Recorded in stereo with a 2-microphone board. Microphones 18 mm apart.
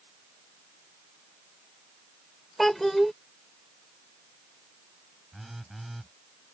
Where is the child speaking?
10° left (ahead or behind).